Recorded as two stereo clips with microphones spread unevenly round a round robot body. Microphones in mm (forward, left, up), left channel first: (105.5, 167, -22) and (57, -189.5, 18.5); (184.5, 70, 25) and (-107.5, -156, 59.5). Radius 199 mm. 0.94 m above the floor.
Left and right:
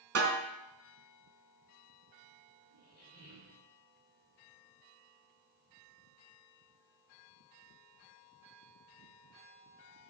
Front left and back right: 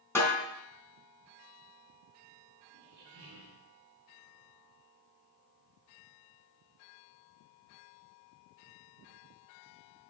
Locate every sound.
0.1 s a snare drum: 45° right, 3.5 m
2.7 s a squeak: 155° left, 3.5 m